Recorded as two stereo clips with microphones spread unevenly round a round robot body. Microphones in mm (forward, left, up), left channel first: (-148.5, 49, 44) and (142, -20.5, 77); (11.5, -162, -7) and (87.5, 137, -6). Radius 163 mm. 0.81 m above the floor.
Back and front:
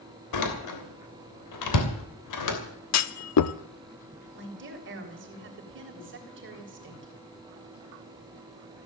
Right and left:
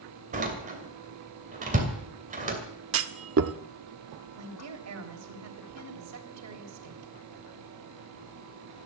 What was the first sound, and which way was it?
A door slam, 145° left.